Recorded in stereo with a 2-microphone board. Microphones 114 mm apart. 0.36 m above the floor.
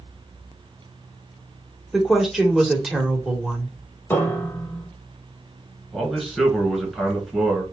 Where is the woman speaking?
Centre (ahead or behind), 1.2 m.